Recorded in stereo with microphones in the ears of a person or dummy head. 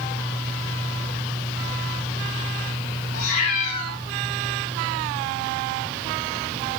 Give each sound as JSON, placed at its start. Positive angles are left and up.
{"t": 3.1, "sound": "a cat meowing", "side_deg": 55, "distance_m": 4.5}